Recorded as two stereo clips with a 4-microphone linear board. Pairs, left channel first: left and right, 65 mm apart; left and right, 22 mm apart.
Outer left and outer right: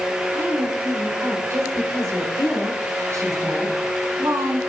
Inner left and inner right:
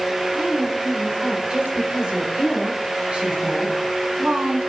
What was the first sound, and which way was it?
A woman speaking, 40° right (ahead or behind).